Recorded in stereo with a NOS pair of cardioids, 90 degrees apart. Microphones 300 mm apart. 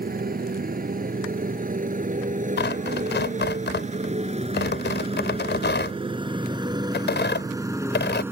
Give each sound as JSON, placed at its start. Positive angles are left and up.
{"t": 0.0, "sound": "a motorcycle", "azimuth_deg": -30}
{"t": 2.6, "sound": "tearing paper", "azimuth_deg": 35}